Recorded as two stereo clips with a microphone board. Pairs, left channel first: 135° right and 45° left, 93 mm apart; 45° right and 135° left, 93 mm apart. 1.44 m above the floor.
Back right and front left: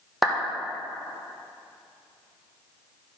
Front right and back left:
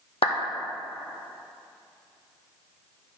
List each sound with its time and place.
0.2 s a clap: 45° right, 1.2 m